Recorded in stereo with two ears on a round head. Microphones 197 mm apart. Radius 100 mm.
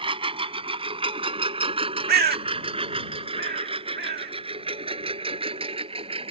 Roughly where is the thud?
No thud in this recording.